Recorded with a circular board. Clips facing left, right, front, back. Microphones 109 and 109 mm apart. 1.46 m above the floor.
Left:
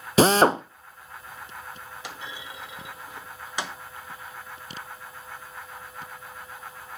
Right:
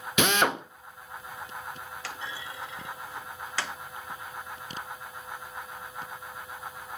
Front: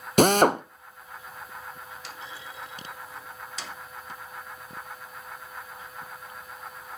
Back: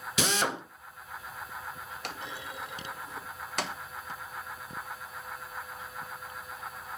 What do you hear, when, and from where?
0.2 s a drill: 35° left, 0.6 m
2.0 s a clunk: 160° left, 1.0 m